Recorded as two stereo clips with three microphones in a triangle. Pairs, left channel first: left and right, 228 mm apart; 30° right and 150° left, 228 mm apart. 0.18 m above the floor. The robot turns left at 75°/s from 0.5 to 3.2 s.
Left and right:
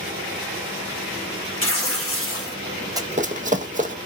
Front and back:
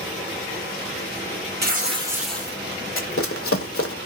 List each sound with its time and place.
1.6 s tearing paper: 110° left, 1.0 m; by 2.6 s 40° left, 1.0 m
3.0 s running footsteps: 15° right, 0.6 m; by 4.0 s 35° right, 0.6 m